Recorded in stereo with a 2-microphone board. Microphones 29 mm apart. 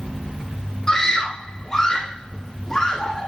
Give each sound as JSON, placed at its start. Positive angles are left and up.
{"t": 0.9, "sound": "a scream", "side_deg": 20, "distance_m": 3.5}